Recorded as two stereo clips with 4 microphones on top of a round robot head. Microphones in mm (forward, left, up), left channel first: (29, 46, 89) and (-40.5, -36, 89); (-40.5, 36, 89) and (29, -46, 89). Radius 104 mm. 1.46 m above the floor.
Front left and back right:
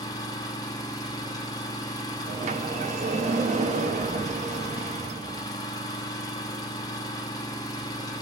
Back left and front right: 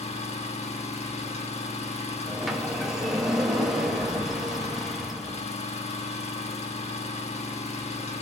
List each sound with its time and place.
0.0 s an engine running: 105° left, 5 m
2.3 s a sliding door: 135° right, 3 m